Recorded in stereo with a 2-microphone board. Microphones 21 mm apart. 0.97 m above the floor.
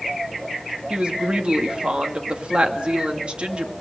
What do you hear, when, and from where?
0.9 s a woman speaking: 50° right (ahead or behind), 2 m